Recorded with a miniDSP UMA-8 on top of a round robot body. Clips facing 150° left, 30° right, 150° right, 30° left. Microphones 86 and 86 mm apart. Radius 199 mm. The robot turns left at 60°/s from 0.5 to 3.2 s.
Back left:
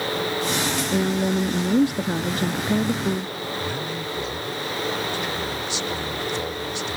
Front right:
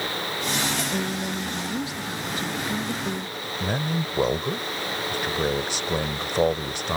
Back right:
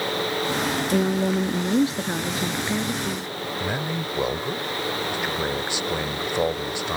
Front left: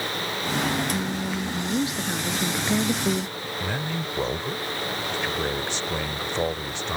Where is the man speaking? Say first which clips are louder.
Front right 1 dB, back right 1 dB; 70° right.